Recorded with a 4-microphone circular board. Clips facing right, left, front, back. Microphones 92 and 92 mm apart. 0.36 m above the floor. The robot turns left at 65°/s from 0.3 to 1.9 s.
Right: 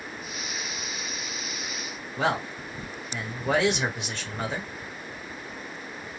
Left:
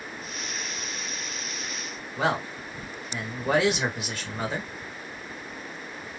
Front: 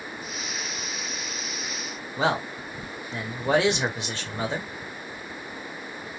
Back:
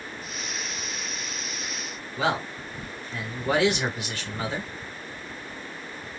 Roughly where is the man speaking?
Ahead.